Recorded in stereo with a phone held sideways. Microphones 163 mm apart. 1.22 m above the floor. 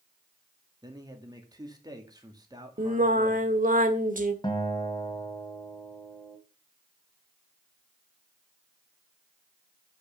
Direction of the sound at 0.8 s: 25° right (ahead or behind).